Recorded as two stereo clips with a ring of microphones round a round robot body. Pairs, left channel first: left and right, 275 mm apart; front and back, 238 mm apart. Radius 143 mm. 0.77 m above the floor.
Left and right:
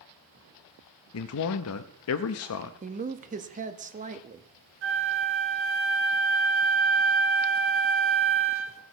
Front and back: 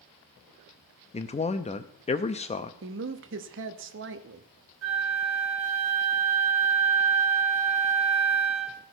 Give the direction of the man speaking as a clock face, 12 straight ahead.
10 o'clock.